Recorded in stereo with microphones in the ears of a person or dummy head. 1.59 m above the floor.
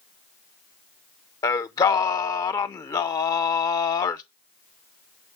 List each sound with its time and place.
1.4 s singing: 20° left (ahead or behind), 0.7 m